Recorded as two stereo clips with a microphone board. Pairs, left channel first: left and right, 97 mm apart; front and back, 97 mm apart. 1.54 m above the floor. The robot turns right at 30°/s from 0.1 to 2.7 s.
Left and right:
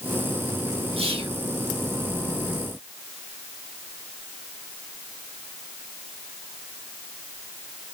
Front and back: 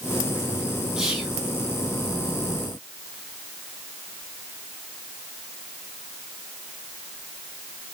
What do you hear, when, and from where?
1.0 s whispering: 100° right, 5 m; by 1.4 s 90° right, 5 m